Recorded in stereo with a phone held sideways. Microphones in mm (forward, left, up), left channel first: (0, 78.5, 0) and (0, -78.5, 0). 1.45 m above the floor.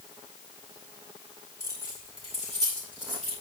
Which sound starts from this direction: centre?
Keys jangling, at 1.6 s.